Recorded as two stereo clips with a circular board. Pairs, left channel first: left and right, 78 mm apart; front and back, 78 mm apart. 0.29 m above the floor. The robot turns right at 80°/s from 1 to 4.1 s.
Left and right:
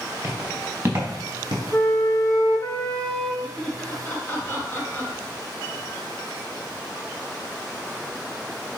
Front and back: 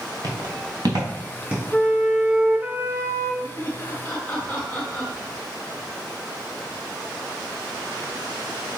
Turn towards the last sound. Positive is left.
turn(degrees=60)